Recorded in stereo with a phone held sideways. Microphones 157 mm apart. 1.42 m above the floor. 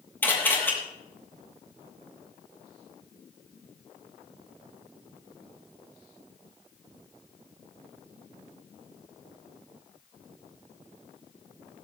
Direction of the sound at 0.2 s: 15° left (ahead or behind).